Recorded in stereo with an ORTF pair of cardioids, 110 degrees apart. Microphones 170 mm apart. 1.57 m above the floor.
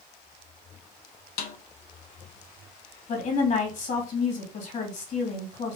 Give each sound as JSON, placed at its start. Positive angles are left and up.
{"t": 1.4, "sound": "a snare drum", "azimuth_deg": 65, "distance_m": 1.0}
{"t": 3.1, "sound": "a woman speaking", "azimuth_deg": 50, "distance_m": 2.5}